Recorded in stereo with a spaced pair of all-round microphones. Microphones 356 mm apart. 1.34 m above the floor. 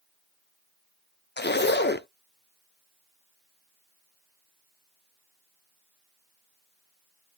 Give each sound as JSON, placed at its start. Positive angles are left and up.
{"t": 1.4, "sound": "a zipper", "side_deg": 30, "distance_m": 0.5}